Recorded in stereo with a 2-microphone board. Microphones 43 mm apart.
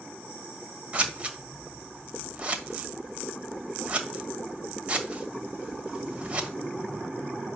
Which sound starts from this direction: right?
Scissors, at 0.9 s.